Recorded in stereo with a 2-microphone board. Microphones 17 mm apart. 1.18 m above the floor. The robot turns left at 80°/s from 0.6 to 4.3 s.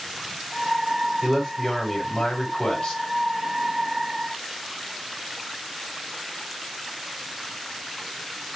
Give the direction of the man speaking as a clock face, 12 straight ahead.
5 o'clock.